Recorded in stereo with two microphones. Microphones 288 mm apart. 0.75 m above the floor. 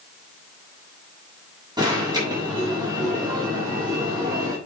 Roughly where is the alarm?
Centre.